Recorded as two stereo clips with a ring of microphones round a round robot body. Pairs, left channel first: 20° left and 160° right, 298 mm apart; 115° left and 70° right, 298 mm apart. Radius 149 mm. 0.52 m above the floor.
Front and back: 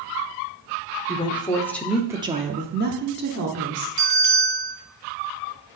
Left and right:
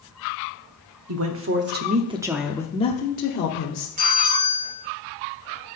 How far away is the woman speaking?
About 1.0 m.